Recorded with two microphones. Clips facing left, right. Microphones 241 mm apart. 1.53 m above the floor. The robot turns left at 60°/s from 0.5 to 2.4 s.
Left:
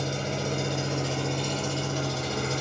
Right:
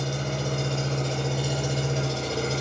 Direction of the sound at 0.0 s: 45° left.